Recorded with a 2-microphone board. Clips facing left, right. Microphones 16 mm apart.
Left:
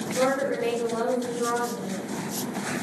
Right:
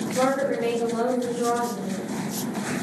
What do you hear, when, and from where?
0.1 s a woman speaking: 20° right (ahead or behind), 1.4 m